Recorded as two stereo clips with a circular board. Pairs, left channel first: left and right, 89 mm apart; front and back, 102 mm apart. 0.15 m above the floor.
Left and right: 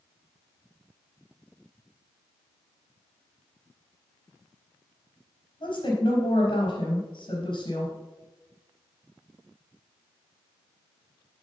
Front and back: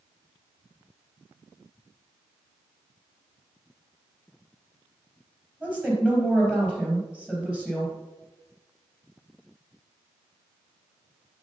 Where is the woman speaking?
100° left, 4 m.